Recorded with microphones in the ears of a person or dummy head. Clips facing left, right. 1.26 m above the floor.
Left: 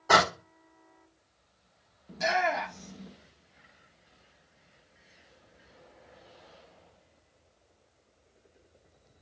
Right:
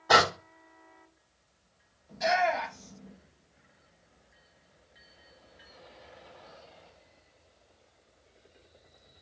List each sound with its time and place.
0.1 s a door slam: 65° left (ahead or behind), 2 m
2.1 s a shout: 70° left (ahead or behind), 0.9 m